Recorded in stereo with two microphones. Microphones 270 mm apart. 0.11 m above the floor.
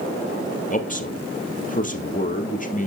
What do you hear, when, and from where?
0.7 s a man speaking: 30° left (ahead or behind), 2.5 m